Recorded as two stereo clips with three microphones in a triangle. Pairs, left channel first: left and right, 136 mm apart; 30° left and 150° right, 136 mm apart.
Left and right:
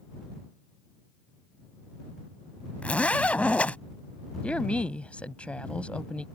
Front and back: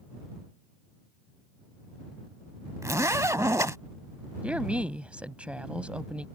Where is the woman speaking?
150° left.